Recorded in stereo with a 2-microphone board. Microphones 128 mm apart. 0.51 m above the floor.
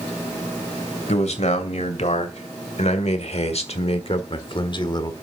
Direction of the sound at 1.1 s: 60° left (ahead or behind).